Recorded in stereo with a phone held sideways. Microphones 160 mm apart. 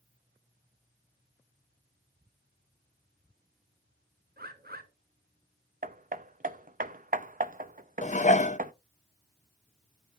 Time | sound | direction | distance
4.4 | a bird | 70° right (ahead or behind) | 1.6 m
5.8 | hammering | 60° right (ahead or behind) | 0.6 m
8.0 | dishes clattering | 50° left (ahead or behind) | 0.6 m